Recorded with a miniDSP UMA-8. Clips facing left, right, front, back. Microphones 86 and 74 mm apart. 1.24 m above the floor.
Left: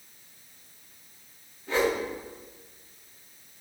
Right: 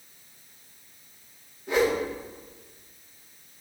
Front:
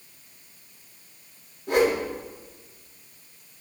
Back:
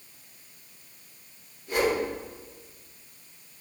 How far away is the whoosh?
About 2.5 m.